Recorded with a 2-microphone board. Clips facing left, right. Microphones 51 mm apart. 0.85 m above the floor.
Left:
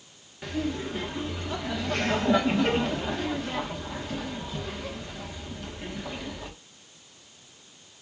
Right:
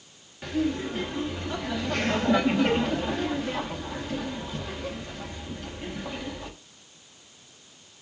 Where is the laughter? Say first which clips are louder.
Right 3 dB; centre (ahead or behind), 1.3 m.